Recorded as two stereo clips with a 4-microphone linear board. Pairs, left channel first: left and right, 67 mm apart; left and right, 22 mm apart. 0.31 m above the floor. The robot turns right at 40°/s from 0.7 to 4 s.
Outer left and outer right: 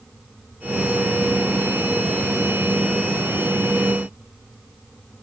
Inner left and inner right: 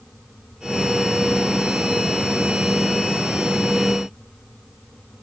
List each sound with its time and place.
Only background noise.